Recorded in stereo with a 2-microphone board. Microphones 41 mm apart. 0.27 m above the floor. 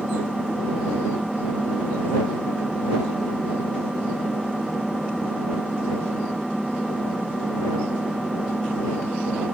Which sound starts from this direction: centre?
An engine running, at 0.0 s.